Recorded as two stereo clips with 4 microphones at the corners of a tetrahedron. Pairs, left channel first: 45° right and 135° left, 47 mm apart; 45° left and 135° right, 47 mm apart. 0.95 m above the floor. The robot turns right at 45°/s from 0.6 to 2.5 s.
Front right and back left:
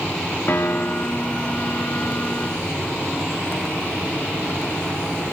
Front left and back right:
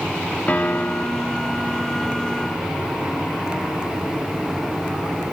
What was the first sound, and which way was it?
A piano, 10° right.